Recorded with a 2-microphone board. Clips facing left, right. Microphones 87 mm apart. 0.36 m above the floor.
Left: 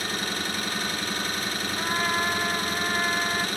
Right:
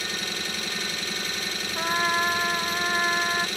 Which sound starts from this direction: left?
An engine running, at 0.0 s.